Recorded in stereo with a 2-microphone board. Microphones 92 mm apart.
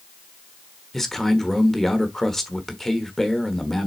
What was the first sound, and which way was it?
A man speaking, 5° left (ahead or behind).